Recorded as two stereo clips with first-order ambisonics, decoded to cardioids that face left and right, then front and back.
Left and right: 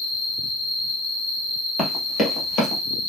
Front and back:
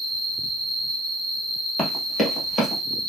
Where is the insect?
100° left, 1.2 m.